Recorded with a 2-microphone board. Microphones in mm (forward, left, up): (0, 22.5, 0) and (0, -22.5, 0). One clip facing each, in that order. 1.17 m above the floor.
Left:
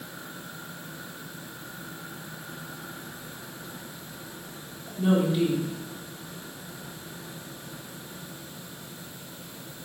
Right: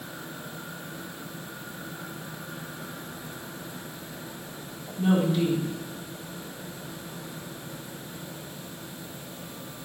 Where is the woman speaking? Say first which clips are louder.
Even; 10° left (ahead or behind), 3.5 m.